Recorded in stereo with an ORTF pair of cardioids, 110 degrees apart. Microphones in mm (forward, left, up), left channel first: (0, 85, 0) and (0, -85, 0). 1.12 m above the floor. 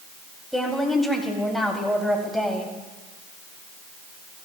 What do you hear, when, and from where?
0.5 s a woman speaking: straight ahead, 2.5 m